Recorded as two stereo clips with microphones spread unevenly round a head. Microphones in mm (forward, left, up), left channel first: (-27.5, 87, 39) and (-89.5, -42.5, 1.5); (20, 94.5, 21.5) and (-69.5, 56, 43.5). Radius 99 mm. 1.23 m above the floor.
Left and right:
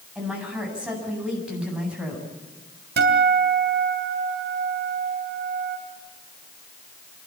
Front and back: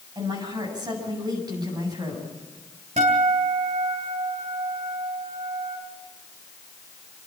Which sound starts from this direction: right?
A guitar, at 3.0 s.